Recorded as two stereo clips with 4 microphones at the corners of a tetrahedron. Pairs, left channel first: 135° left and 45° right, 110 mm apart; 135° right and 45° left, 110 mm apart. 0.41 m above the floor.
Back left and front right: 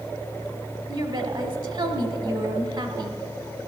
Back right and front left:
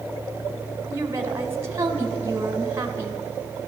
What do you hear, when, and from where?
0.9 s a woman speaking: 15° right, 1.5 m